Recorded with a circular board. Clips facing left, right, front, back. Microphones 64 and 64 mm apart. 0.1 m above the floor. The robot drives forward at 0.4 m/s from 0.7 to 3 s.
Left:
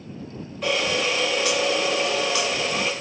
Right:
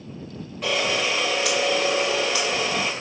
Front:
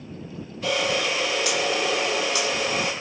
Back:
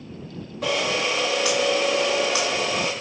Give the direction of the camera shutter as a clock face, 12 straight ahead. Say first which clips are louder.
Even, even; 6 o'clock.